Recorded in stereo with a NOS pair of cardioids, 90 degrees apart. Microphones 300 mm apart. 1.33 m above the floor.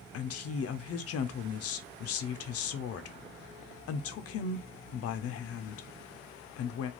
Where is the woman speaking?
60° left, 0.5 m.